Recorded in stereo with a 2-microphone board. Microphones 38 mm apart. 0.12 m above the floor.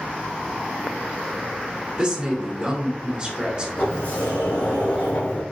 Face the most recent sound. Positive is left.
turn(degrees=40)  # may be behind; listen again after turning